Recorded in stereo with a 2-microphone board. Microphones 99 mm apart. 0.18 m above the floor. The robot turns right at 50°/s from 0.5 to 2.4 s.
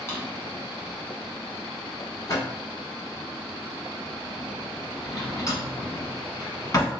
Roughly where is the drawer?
Left.